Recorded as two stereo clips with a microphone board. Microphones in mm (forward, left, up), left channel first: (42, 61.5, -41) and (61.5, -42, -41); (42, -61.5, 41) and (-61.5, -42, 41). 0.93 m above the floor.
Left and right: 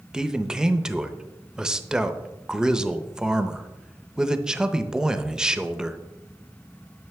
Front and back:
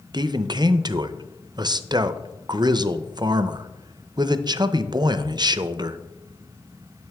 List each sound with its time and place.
0.1 s a man speaking: 160° right, 0.5 m